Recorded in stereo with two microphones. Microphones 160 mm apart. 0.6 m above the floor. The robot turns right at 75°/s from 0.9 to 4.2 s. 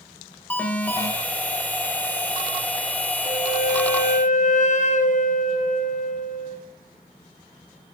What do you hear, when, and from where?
0.5 s an alarm: 10° left (ahead or behind), 2.5 m; by 1.1 s 25° left (ahead or behind), 2.5 m
3.2 s a flute: 55° left, 1.3 m; by 6.6 s 125° left, 1.3 m